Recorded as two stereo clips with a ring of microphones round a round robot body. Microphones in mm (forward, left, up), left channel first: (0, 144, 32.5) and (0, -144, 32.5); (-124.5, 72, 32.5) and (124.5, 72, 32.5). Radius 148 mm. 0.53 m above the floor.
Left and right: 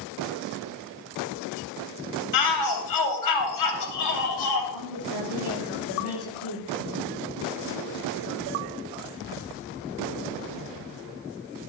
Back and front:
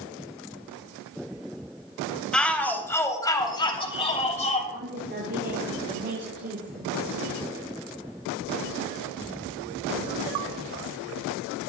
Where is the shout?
95° left, 3 m; by 4.6 s 120° left, 3 m.